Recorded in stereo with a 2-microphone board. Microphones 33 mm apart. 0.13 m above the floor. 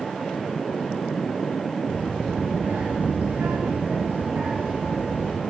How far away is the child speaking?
About 2.0 m.